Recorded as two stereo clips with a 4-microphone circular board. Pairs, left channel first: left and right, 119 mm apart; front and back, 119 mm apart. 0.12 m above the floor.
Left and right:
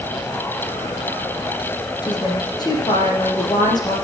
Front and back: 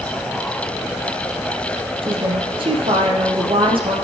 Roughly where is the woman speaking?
Behind left.